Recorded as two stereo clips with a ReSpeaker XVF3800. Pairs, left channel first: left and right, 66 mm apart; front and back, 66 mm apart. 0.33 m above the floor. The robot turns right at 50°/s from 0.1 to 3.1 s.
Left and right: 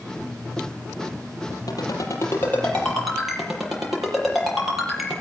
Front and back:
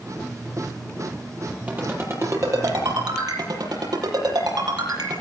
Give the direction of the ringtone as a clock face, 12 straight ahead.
8 o'clock.